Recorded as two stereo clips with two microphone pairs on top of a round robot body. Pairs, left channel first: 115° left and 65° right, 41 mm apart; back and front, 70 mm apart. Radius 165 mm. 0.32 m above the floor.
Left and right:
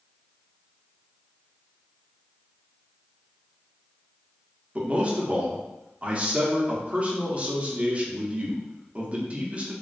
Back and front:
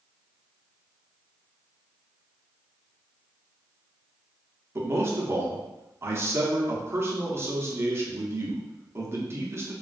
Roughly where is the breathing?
I don't hear breathing.